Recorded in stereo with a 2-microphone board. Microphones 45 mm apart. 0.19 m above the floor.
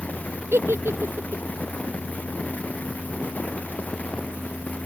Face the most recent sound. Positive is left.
turn(degrees=-75)  # may be behind; listen again after turning